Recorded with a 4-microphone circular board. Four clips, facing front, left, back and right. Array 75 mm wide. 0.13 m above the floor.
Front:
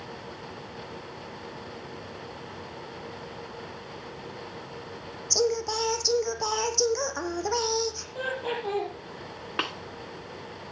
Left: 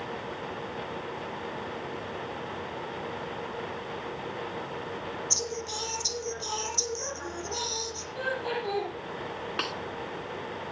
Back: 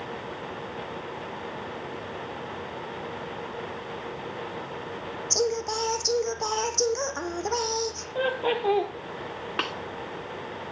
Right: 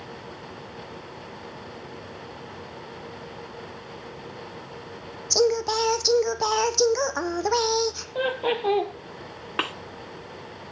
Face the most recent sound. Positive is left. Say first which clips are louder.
# right 6 dB, even
turn(degrees=-100)